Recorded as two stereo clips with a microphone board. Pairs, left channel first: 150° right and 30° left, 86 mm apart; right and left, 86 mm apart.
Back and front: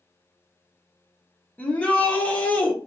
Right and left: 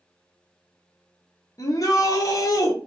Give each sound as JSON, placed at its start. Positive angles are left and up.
{"t": 1.6, "sound": "a shout", "azimuth_deg": -85, "distance_m": 1.0}